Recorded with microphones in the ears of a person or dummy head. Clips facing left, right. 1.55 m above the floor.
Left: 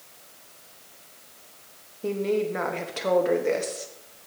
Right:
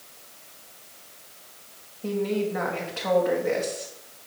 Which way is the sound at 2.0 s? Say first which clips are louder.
Left 1 dB; 45° left (ahead or behind).